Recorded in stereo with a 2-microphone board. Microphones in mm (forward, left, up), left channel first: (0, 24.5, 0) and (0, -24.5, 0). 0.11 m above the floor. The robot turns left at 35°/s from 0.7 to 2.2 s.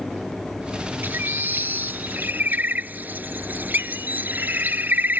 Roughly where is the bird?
Right.